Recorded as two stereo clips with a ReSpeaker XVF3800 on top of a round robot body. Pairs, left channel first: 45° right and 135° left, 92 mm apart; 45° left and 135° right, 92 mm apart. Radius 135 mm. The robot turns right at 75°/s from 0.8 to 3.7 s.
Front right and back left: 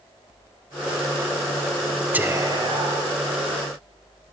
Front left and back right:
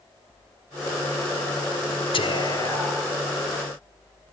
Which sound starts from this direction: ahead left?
Whispering, at 2.1 s.